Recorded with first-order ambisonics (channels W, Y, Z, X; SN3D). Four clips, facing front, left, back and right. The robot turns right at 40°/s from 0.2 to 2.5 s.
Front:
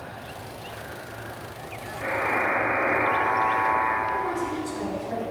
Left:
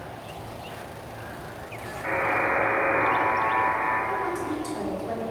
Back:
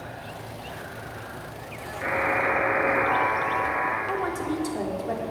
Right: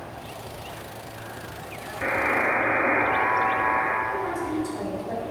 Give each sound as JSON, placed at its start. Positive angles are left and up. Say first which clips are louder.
{"t": 2.0, "sound": "a buzzer", "louder": "right 2 dB, back 1 dB", "azimuth_deg": -105, "distance_m": 3.0}
{"t": 4.1, "sound": "a woman speaking", "louder": "even, front 1 dB", "azimuth_deg": 165, "distance_m": 2.5}